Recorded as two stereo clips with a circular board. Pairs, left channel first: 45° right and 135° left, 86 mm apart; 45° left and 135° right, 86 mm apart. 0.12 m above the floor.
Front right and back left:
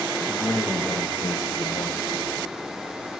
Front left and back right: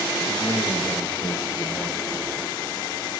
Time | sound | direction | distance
0.3 | a man speaking | 20° left | 5.5 m